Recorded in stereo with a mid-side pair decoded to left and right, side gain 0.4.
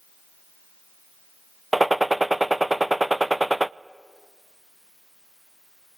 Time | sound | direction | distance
1.7 | a gunshot | 10° right | 0.6 m